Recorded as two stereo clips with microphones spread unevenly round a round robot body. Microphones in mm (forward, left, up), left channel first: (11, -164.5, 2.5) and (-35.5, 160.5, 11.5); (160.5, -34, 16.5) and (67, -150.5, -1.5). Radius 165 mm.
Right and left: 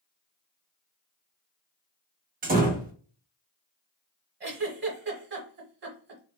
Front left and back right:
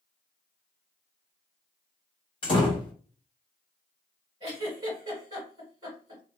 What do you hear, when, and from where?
2.4 s a door slam: 70° left, 0.7 m
4.4 s a giggle: 160° left, 0.9 m